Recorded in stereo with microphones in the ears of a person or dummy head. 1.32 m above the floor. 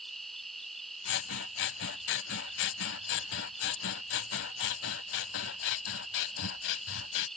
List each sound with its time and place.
0.0 s an insect: 5° left (ahead or behind)
1.1 s scissors: 60° left (ahead or behind)